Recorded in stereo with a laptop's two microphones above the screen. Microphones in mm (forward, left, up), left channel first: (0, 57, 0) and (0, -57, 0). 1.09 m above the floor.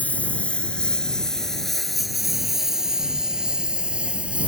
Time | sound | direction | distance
0.0 | a lawn mower | 15° left (ahead or behind) | ?